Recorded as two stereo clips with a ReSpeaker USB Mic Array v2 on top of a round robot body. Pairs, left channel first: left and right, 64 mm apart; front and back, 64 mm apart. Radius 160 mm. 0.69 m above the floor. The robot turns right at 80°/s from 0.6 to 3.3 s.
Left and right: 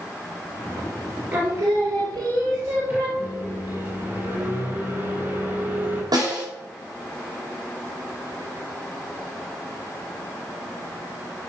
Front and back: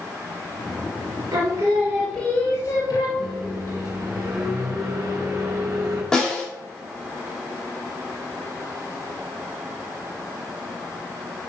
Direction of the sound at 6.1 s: 80° right.